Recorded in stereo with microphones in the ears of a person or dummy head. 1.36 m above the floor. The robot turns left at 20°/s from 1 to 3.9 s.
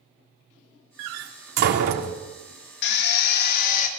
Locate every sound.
1.0 s a door slam: 70° right (ahead or behind), 2.5 m; by 2.2 s 45° right (ahead or behind), 2.5 m
2.8 s a drill: 65° left (ahead or behind), 3.5 m; by 3.9 s 40° left (ahead or behind), 3.5 m